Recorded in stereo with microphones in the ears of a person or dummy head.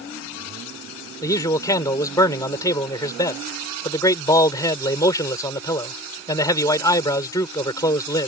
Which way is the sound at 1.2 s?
20° left (ahead or behind).